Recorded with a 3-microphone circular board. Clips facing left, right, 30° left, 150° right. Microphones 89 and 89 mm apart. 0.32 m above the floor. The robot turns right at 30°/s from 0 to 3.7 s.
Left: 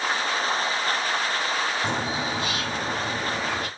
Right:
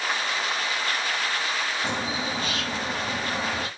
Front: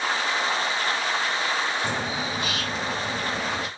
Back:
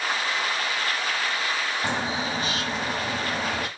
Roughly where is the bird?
Behind left.